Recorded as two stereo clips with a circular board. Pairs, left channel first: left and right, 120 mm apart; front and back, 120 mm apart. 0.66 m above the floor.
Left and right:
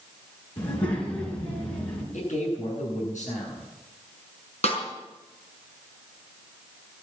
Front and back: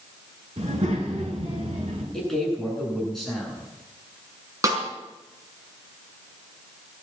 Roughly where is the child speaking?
Behind left.